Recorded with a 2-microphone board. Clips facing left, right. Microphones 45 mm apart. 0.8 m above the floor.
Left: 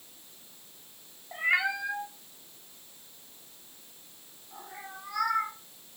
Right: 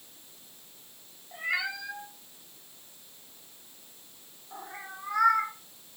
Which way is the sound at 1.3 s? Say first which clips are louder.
Left 4 dB; 35° left (ahead or behind).